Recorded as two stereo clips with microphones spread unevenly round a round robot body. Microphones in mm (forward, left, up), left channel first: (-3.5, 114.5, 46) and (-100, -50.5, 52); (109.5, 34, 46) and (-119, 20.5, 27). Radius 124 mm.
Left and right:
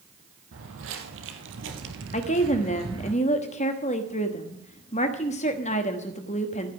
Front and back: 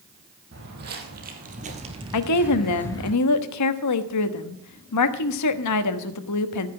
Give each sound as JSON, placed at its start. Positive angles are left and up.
{"t": 0.5, "sound": "footsteps", "azimuth_deg": -125, "distance_m": 2.5}
{"t": 2.1, "sound": "a woman speaking", "azimuth_deg": 0, "distance_m": 1.1}